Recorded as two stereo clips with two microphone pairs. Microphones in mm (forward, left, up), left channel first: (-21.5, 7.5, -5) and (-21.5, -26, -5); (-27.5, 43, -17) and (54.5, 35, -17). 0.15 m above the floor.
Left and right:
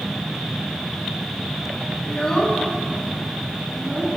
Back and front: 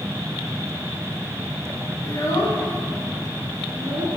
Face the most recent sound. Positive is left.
turn(degrees=-40)